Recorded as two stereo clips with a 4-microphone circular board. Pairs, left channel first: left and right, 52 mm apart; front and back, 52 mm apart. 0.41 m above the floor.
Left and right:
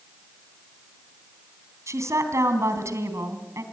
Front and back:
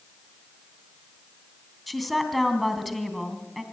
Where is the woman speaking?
95° right, 3 m.